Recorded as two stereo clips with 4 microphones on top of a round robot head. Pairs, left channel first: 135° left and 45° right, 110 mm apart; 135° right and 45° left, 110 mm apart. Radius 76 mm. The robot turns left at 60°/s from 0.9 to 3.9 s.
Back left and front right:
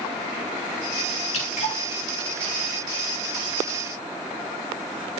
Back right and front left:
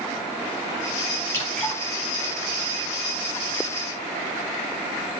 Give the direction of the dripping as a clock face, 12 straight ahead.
7 o'clock.